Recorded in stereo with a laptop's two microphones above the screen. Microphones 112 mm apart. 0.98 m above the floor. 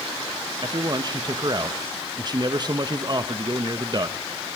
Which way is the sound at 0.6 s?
40° right (ahead or behind).